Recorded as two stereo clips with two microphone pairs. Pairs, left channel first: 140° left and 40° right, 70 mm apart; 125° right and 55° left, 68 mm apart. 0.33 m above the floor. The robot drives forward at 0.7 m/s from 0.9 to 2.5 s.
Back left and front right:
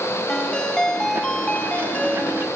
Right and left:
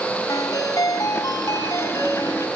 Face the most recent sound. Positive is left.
turn(degrees=-155)